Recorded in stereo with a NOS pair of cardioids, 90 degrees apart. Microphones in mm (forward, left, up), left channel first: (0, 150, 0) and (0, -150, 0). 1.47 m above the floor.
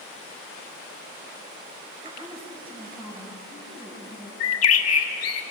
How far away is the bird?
About 1.9 m.